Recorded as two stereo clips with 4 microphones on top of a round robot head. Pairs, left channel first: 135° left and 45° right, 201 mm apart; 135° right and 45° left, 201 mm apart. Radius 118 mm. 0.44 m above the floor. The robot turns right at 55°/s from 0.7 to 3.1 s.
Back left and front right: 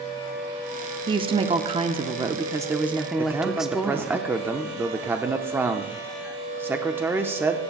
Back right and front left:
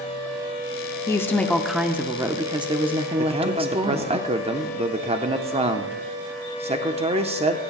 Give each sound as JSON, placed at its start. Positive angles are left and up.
{"t": 1.1, "sound": "a woman speaking", "azimuth_deg": -75, "distance_m": 0.8}
{"t": 3.2, "sound": "a man speaking", "azimuth_deg": 25, "distance_m": 0.8}